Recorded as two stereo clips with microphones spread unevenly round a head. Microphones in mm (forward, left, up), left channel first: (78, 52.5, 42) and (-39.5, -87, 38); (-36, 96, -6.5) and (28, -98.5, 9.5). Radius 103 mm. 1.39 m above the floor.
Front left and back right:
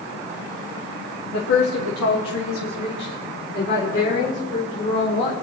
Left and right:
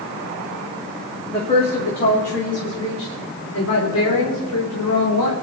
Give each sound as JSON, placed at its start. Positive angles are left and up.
{"t": 1.3, "sound": "a woman speaking", "azimuth_deg": 40, "distance_m": 2.5}